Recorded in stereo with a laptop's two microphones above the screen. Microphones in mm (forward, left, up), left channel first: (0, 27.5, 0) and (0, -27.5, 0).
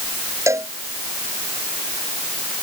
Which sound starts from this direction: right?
A cowbell, at 0.5 s.